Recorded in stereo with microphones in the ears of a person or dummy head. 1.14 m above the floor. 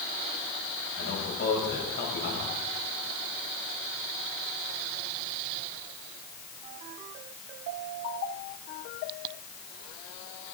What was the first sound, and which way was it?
A man speaking, 60° left (ahead or behind).